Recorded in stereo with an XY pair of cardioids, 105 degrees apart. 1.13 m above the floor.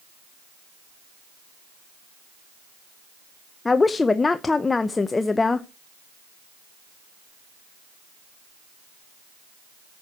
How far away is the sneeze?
No sneeze in this recording.